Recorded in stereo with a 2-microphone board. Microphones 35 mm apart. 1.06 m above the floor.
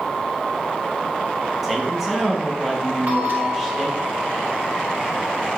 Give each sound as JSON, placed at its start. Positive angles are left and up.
{"t": 1.6, "sound": "a man speaking", "side_deg": -5, "distance_m": 0.9}
{"t": 3.1, "sound": "a bell", "side_deg": -50, "distance_m": 1.3}